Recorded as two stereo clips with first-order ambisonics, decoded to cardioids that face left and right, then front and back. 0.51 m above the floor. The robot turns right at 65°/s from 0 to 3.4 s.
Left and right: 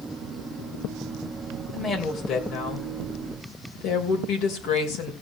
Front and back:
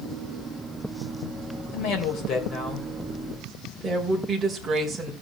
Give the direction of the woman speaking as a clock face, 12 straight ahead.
12 o'clock.